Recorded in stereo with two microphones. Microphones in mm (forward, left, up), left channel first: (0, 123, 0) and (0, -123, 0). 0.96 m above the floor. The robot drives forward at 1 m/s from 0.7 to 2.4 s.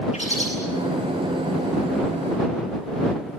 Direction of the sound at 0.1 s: 25° left (ahead or behind).